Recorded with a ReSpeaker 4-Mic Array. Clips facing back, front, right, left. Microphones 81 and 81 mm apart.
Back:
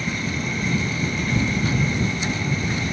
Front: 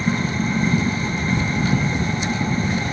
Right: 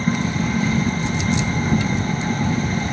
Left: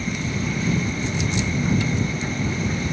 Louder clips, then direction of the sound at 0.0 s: Front 5 dB, right 5 dB; 55° right.